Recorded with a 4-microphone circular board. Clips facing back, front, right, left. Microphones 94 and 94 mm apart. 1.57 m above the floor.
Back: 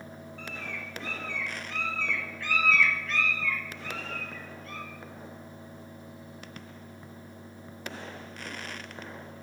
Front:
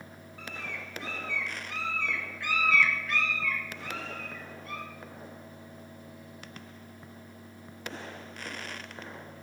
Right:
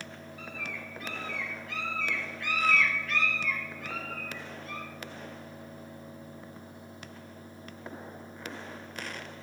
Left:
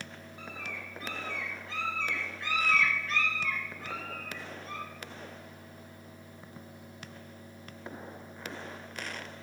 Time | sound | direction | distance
0.4 | a bird | 75° left | 1.6 m